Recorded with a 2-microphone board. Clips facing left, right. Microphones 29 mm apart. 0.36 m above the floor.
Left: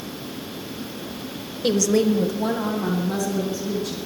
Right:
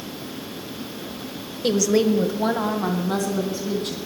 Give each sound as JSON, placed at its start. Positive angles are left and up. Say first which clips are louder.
{"t": 1.6, "sound": "a woman speaking", "louder": "even", "side_deg": 5, "distance_m": 1.1}